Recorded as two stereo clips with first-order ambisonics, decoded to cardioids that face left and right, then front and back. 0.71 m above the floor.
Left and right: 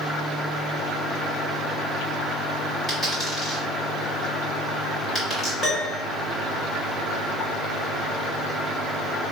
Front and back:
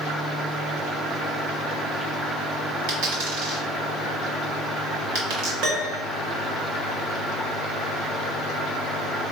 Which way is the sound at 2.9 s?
175° left.